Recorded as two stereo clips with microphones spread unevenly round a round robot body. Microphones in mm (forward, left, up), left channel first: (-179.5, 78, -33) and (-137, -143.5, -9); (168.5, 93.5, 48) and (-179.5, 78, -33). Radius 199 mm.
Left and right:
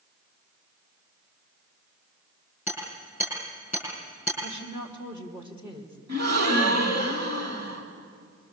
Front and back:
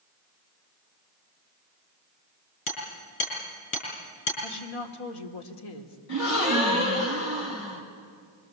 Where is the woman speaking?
5° left, 2.5 m.